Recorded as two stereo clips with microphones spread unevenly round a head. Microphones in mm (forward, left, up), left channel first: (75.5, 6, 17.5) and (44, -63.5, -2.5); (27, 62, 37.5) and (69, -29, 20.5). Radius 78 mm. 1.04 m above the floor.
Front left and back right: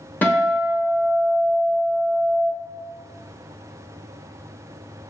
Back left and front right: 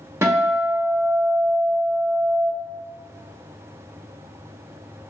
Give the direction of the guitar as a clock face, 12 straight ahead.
12 o'clock.